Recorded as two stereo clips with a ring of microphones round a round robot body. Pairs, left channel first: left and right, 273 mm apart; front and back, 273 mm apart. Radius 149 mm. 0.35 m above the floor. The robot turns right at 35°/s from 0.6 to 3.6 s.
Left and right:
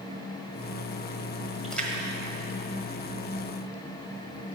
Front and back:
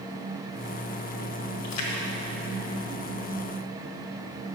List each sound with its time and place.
1.6 s a splash: straight ahead, 1.5 m; by 3.6 s 70° left, 1.5 m